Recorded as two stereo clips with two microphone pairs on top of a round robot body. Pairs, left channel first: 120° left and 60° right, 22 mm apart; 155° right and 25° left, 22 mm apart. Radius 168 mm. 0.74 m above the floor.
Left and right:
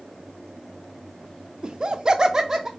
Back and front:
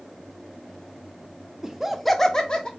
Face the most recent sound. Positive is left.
turn(degrees=-125)